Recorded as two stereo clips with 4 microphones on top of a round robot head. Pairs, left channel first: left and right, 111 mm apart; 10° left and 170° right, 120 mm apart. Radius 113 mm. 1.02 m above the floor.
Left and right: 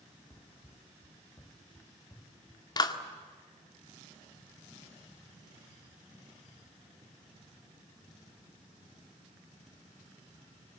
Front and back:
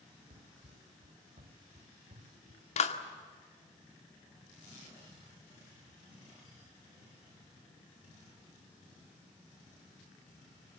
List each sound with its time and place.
0.3 s running footsteps: 170° left, 2.5 m; by 2.7 s 160° left, 4.5 m
2.8 s a clap: 35° left, 1.9 m